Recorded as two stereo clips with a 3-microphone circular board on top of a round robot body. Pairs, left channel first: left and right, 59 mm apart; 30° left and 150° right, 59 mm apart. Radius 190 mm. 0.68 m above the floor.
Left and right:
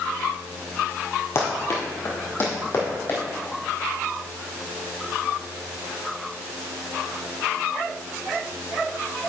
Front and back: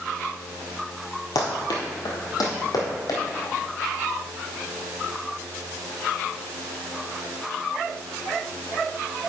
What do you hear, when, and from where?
1.4 s running footsteps: 40° left, 1.3 m; by 3.2 s 35° left, 2.5 m